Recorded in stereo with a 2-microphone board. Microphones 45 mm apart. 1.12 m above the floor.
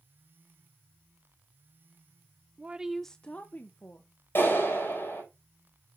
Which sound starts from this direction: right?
A woman speaking, at 2.6 s.